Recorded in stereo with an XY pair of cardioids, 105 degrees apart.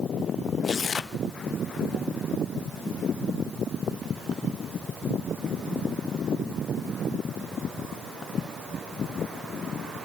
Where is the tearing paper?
40° left, 1.3 m.